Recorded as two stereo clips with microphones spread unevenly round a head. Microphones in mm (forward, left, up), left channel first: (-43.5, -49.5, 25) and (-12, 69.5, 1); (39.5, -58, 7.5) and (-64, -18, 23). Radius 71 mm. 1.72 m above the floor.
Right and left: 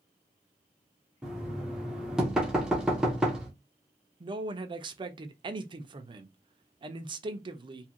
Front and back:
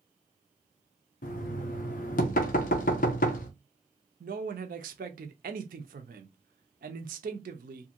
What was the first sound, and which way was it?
Knocking, 15° right.